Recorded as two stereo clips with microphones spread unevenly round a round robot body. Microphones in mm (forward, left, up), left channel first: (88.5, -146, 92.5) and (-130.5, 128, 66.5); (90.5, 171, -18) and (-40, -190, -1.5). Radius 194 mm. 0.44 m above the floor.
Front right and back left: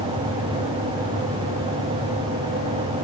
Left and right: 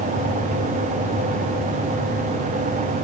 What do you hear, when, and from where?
Only background noise.